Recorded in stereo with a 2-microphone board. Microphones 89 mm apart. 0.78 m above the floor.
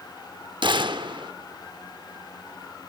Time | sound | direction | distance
0.6 | a gunshot | 70° right (ahead or behind) | 0.7 m